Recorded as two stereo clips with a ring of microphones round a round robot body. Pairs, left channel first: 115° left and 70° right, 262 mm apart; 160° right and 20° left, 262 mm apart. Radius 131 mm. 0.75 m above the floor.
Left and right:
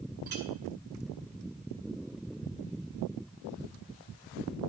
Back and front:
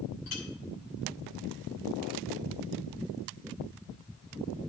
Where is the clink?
120° right, 2 m.